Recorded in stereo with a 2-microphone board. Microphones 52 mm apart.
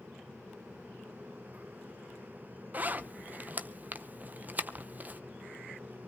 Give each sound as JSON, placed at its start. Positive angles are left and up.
{"t": 2.7, "sound": "a zipper", "side_deg": -35, "distance_m": 0.6}